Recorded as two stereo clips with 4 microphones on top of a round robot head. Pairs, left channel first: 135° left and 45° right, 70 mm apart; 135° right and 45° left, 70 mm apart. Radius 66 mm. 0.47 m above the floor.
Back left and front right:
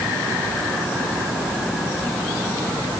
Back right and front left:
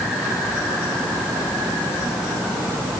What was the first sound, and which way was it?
Only background noise.